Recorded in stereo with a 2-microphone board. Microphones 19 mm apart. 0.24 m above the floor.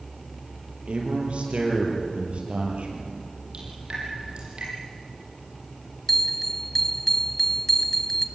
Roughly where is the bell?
Centre.